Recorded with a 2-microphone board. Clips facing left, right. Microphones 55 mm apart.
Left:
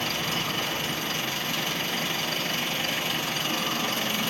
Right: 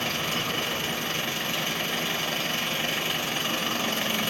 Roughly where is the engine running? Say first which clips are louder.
Even; right.